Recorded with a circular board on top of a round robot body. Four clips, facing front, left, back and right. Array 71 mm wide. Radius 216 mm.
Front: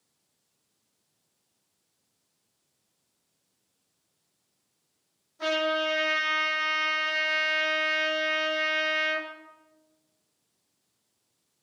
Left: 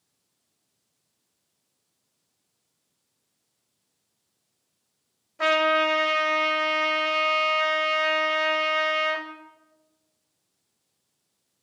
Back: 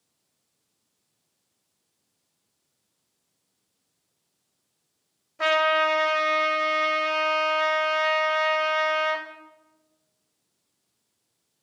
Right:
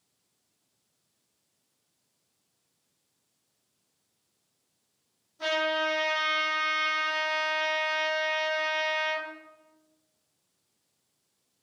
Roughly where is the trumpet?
Behind left.